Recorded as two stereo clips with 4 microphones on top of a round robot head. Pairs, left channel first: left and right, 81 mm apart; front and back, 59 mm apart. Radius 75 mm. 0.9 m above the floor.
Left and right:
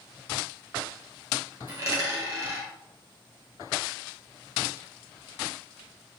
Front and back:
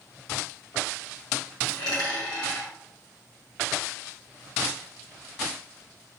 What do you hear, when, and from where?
1.7 s a dropped coin: 45° right, 1.4 m